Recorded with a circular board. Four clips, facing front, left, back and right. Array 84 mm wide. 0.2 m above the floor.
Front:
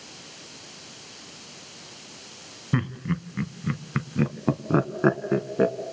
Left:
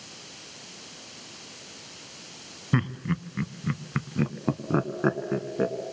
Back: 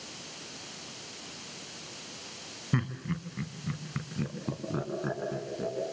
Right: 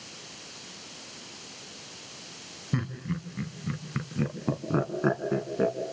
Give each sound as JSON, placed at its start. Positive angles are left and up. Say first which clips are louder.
{"t": 2.7, "sound": "laughter", "louder": "left 5 dB, front 5 dB", "azimuth_deg": 65, "distance_m": 1.9}